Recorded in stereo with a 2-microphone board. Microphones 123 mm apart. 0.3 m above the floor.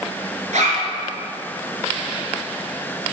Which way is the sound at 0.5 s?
75° right (ahead or behind).